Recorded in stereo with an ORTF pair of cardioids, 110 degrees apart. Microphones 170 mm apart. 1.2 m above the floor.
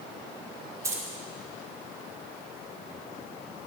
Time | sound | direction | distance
0.8 | keys jangling | 20° right | 3 m